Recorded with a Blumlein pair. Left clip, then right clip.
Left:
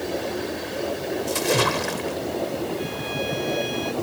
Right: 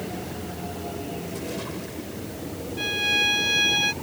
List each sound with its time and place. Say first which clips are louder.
1.3 s a splash: left 12 dB; 55° left
2.8 s a violin: right 6 dB; 30° right